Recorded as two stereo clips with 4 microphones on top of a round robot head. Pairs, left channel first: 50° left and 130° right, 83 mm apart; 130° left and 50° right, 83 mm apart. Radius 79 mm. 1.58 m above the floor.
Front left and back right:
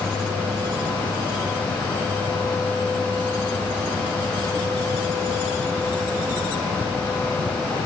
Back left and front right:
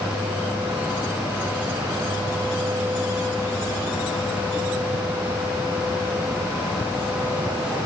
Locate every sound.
Only background noise.